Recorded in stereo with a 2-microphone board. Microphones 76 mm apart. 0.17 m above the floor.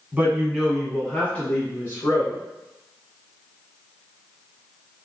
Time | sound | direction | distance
0.1 | a woman speaking | 20° right (ahead or behind) | 1.0 m